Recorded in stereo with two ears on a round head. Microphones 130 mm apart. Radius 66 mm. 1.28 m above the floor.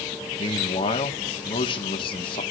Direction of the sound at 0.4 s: 35° left (ahead or behind).